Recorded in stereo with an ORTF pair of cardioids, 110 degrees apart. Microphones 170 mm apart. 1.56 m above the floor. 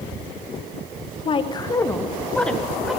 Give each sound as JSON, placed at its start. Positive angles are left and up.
{"t": 1.2, "sound": "a woman speaking", "azimuth_deg": 35, "distance_m": 0.8}